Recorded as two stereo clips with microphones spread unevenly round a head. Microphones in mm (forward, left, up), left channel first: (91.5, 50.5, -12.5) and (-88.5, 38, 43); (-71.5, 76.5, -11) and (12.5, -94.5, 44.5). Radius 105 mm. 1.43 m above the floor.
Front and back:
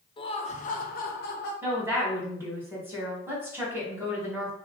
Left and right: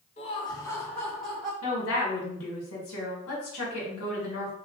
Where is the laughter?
65° left, 0.7 m; by 1.5 s 25° left, 1.2 m.